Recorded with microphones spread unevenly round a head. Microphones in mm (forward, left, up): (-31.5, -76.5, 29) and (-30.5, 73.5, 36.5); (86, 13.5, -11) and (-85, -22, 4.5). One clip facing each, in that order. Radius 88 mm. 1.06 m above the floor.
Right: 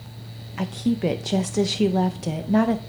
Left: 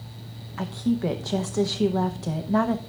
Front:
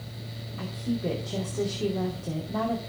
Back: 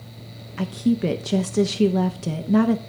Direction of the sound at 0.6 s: 160° right.